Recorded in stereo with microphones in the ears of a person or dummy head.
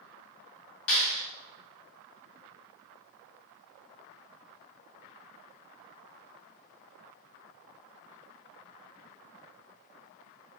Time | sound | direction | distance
0.9 | a clap | 90° left | 1.9 m